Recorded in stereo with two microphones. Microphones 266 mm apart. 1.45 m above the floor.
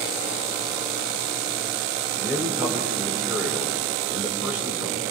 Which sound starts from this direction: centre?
A man speaking, at 2.2 s.